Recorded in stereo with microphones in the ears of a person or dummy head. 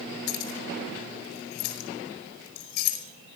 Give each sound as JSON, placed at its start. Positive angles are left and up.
{"t": 0.3, "sound": "keys jangling", "side_deg": 65, "distance_m": 5.0}